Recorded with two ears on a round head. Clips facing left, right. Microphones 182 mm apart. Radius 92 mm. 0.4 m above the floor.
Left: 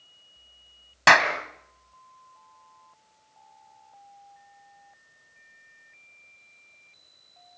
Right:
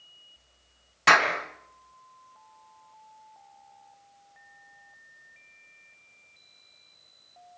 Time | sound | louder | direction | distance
1.1 | a clap | left 3 dB | 65° left (ahead or behind) | 3 m